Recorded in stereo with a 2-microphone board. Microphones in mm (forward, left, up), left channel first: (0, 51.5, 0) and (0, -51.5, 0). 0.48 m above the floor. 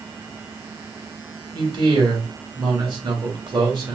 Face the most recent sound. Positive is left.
turn(degrees=-50)  # may be behind; listen again after turning